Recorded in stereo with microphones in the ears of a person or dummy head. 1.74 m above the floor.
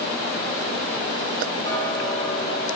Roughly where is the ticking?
Left.